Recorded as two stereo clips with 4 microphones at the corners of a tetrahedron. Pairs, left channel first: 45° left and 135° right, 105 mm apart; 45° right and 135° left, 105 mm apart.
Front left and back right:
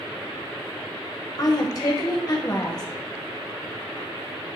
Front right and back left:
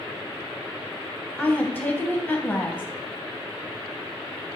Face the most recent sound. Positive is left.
turn(degrees=20)